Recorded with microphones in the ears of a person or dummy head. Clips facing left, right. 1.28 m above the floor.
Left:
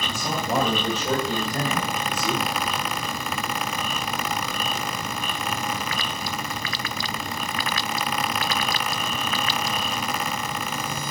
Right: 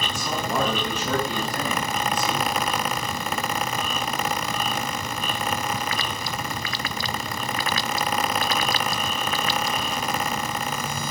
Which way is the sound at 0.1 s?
30° left (ahead or behind).